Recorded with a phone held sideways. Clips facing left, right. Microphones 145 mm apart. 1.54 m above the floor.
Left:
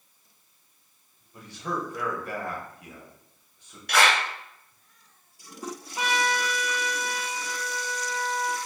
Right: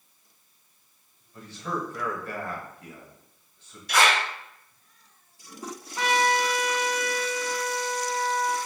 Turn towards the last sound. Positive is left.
turn(degrees=15)  # may be behind; listen again after turning